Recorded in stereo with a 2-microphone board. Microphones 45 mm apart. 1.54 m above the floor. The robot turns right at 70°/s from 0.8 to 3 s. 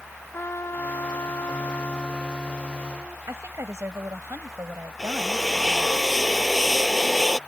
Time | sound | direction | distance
0.3 | a trumpet | 60° left | ?
3.3 | a woman speaking | 65° right (ahead or behind) | ?
5.0 | a drill | centre (ahead or behind) | ?